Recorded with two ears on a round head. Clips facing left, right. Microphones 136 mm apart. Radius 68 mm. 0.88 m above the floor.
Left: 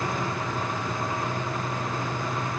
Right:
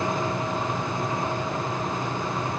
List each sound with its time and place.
Only background noise.